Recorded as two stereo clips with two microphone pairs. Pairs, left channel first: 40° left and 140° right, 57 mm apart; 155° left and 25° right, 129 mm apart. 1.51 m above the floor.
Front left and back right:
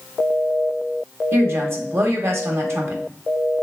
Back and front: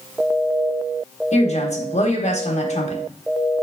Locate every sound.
1.3 s a woman speaking: 175° left, 1.2 m